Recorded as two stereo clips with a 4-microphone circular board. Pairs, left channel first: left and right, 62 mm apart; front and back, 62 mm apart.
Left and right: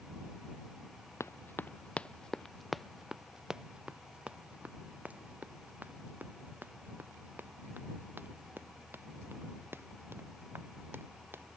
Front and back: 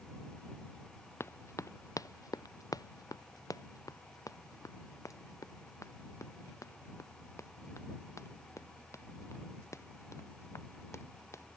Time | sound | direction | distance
1.2 | running footsteps | 45° left | ?